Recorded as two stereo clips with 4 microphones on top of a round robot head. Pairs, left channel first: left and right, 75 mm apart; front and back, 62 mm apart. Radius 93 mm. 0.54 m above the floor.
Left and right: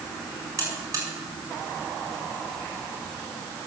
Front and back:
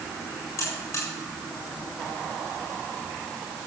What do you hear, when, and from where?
0.6 s a buzzer: 40° right, 7 m